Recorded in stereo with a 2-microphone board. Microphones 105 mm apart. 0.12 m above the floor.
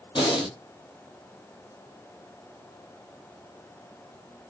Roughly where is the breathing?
Left.